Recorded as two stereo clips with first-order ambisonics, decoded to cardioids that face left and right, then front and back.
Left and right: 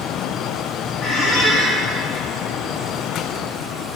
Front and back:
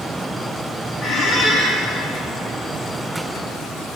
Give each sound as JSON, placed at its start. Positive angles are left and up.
{"t": 1.0, "sound": "a squeak", "azimuth_deg": 80, "distance_m": 6.0}